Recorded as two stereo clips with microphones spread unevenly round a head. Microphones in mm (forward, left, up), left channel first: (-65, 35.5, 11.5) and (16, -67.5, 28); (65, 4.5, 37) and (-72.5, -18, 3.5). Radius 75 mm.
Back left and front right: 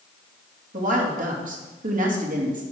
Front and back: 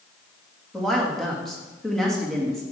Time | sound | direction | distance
0.7 | a woman speaking | 75° right | 2.5 m